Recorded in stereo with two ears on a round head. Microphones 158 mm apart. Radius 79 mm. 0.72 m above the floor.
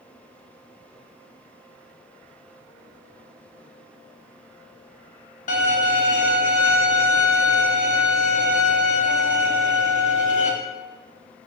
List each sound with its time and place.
5.5 s a violin: 40° left (ahead or behind), 0.7 m